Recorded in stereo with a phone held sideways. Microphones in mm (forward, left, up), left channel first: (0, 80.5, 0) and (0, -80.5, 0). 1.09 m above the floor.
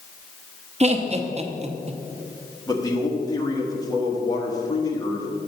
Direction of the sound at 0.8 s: 40° right (ahead or behind).